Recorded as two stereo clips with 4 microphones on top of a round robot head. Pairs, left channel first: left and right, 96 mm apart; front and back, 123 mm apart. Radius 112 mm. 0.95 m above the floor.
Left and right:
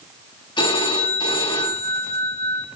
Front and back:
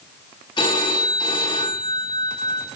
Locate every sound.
0.6 s a phone ringing: 55° left, 6 m